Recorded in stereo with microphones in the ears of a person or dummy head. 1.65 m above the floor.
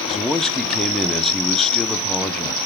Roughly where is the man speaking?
Centre.